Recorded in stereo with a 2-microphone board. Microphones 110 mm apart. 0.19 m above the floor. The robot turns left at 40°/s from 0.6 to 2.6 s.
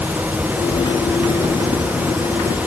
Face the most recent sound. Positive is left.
No sound to turn to.